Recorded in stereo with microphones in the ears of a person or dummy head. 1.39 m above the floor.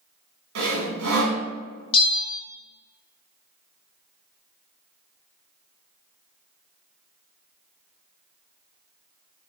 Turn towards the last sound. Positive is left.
turn(degrees=25)  # may be behind; listen again after turning